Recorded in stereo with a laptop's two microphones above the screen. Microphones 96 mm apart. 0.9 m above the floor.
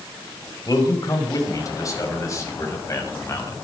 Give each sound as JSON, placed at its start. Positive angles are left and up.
{"t": 0.7, "sound": "a man speaking", "side_deg": 40, "distance_m": 5.0}